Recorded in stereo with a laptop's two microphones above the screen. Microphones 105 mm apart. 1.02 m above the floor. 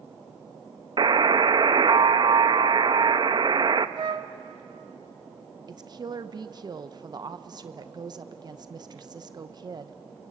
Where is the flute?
45° right (ahead or behind), 0.8 m.